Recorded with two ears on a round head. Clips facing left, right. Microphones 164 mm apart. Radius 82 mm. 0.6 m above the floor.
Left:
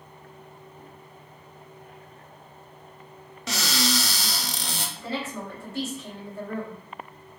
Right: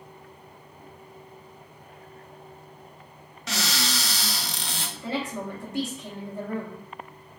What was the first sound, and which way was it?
A cupboard door, 85° left.